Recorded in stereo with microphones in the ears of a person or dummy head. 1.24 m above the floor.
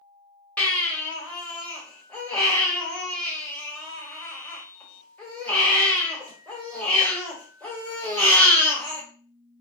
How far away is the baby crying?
About 1.4 m.